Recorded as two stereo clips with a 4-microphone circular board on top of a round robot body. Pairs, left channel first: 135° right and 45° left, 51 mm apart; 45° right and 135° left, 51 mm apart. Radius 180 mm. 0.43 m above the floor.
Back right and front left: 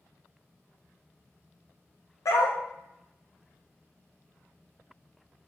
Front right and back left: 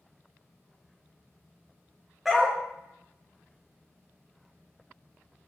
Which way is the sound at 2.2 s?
135° right.